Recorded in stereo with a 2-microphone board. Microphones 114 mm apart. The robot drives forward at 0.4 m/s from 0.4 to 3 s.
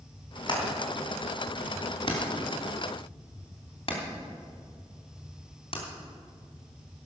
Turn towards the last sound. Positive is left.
turn(degrees=55)  # may be behind; listen again after turning